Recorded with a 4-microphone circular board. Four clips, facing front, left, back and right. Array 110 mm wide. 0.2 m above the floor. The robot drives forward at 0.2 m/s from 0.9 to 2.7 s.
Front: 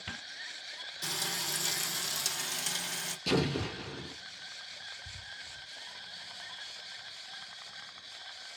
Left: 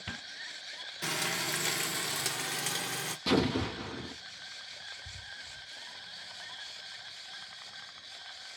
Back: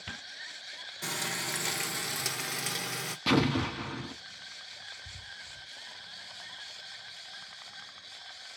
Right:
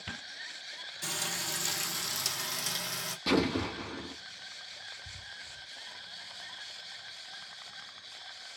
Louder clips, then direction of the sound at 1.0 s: Left 4 dB, back 3 dB; 125° left.